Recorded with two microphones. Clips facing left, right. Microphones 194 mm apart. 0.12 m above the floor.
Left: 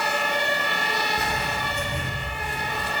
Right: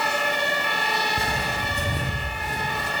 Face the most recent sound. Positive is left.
turn(degrees=-40)  # may be behind; listen again after turning